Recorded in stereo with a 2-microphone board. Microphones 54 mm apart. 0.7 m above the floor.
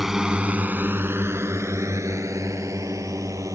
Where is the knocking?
No knocking in this recording.